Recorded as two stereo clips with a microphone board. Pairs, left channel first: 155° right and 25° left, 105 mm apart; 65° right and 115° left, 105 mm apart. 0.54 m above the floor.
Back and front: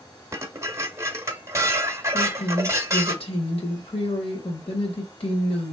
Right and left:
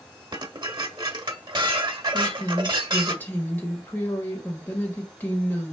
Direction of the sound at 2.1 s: 140° right.